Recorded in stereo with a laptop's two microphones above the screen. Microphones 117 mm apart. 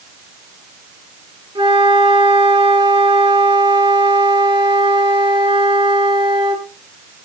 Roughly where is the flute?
Right.